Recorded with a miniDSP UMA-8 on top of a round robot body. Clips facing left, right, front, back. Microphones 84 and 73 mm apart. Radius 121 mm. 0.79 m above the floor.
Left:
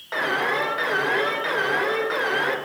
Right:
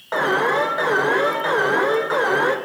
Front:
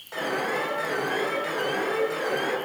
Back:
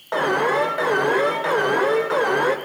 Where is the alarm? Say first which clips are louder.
Right 5 dB, back 8 dB; 150° right, 2.5 m.